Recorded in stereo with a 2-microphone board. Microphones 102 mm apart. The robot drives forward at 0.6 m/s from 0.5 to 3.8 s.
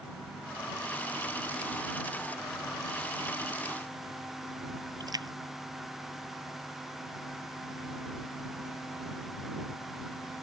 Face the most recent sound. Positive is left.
turn(degrees=-40)  # may be behind; listen again after turning